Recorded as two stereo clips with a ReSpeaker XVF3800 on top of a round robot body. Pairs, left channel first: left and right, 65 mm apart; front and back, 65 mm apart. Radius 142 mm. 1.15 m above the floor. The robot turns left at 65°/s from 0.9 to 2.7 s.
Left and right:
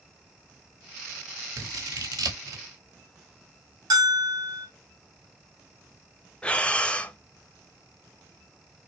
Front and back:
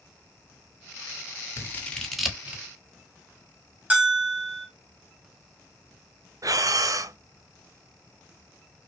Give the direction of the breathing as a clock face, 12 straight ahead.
7 o'clock.